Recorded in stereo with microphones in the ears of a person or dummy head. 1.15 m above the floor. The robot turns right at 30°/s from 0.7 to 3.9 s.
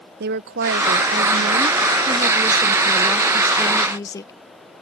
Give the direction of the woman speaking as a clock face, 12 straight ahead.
3 o'clock.